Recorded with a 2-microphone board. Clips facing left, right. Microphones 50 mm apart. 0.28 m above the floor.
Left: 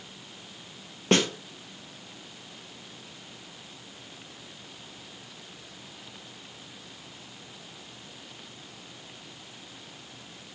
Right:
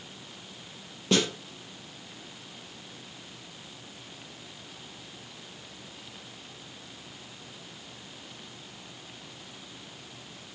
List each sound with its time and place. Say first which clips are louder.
1.1 s a snare drum: left 2 dB; 45° left (ahead or behind), 2.5 m